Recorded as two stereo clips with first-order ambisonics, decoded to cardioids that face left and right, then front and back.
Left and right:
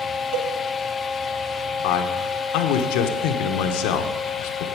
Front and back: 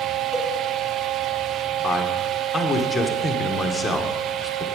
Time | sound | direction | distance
0.3 | a cowbell | 115° right | 2 m
1.8 | a man speaking | 85° left | 1.1 m